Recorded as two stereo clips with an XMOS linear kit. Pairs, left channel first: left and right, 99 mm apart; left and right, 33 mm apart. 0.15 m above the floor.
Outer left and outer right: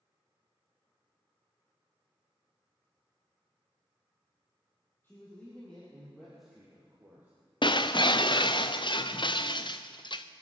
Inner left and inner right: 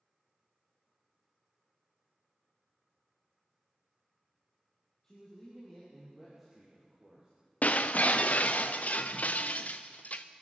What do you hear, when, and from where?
5.0 s a man speaking: 25° left (ahead or behind), 4 m; by 7.3 s 25° right (ahead or behind), 3.5 m
7.6 s breaking glass: 55° left (ahead or behind), 0.9 m